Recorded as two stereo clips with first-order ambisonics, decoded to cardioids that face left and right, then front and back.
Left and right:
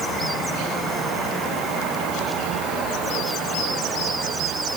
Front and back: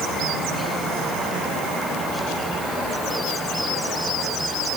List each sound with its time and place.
Only background noise.